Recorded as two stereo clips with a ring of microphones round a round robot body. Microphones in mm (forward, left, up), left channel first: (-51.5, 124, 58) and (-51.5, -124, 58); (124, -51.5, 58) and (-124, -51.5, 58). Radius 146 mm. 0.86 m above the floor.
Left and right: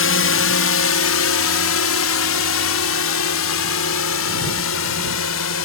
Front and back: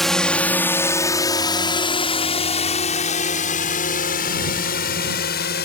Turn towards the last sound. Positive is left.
turn(degrees=55)